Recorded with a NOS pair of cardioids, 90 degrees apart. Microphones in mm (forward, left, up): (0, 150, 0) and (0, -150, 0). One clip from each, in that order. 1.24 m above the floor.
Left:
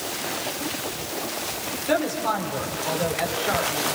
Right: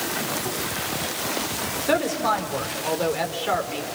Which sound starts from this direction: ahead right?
A woman speaking, at 1.9 s.